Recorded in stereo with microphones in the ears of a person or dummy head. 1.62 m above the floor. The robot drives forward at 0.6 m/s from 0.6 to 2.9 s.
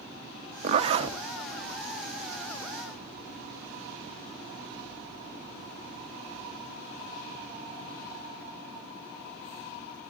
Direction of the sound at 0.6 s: 40° right (ahead or behind).